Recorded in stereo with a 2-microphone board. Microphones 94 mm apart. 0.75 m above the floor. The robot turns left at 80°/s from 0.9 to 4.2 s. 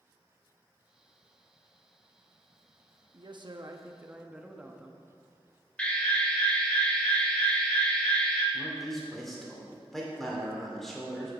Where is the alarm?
10° left (ahead or behind), 1.5 m.